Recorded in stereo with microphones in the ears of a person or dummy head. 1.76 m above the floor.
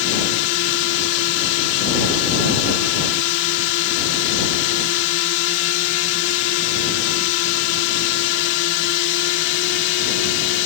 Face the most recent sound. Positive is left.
turn(degrees=65)  # may be behind; listen again after turning